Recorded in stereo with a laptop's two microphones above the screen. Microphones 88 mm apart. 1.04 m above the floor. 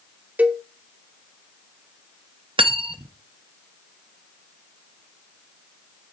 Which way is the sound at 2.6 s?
80° right.